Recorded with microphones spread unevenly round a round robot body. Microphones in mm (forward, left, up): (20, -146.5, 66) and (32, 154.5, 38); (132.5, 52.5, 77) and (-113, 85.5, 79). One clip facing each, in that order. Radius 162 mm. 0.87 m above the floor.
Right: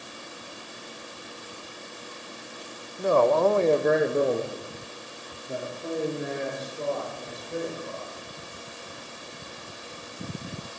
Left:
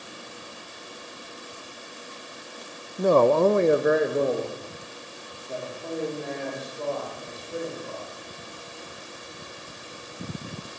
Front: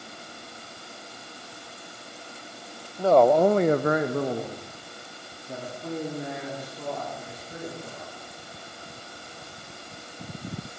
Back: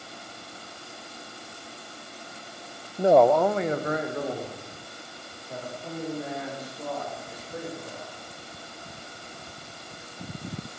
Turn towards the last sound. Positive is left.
turn(degrees=-20)